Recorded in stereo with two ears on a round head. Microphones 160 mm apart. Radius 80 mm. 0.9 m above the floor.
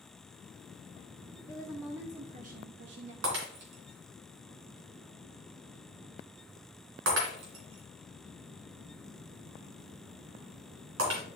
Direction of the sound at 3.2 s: 75° right (ahead or behind).